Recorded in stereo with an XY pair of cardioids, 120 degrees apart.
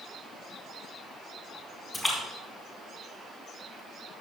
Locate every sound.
1.9 s a splash: 5° right, 4 m